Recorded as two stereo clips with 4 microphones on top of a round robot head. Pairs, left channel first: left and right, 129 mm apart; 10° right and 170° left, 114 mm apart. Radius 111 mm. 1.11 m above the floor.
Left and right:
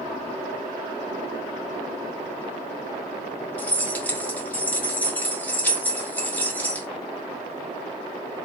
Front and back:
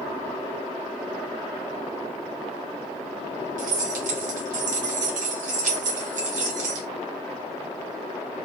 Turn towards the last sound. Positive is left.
turn(degrees=170)